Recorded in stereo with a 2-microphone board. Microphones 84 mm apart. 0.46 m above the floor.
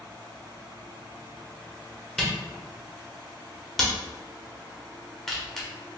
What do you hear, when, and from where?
2.2 s a camera shutter: 5° left (ahead or behind), 0.9 m